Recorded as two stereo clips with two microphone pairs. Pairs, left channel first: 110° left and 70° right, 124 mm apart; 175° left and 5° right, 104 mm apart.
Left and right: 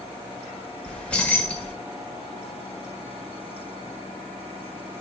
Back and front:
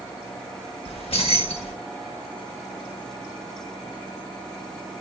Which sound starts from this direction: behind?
Keys jangling, at 0.9 s.